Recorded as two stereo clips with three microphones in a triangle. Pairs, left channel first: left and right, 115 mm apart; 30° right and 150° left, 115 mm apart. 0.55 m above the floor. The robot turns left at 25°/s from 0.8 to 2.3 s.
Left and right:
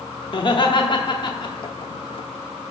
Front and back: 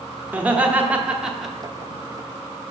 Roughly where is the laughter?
Left.